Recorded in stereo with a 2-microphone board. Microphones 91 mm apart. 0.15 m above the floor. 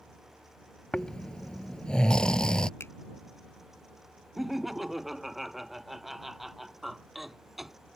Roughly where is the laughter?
Centre.